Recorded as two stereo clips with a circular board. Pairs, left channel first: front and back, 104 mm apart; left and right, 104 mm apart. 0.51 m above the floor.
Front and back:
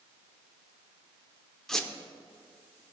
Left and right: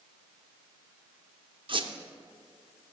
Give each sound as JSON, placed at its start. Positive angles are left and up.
{"t": 1.7, "sound": "a squeak", "azimuth_deg": -85, "distance_m": 0.7}